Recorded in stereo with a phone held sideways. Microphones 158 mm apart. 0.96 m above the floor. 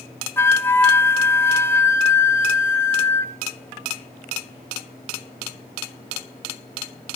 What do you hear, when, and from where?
0.4 s a flute: 15° left (ahead or behind), 0.6 m